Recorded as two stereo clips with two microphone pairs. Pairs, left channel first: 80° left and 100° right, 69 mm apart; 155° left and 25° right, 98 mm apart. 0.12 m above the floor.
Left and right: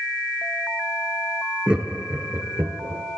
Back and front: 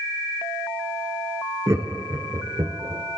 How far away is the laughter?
About 1.3 m.